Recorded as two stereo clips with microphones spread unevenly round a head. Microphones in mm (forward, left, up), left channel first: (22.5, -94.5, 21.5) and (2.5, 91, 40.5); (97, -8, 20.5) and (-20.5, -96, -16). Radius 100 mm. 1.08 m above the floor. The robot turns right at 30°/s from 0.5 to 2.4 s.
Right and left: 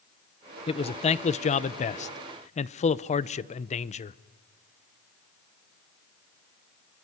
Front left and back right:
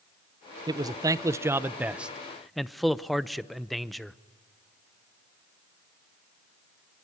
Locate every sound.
0.7 s a man speaking: 120° right, 0.7 m; by 4.2 s 70° right, 0.7 m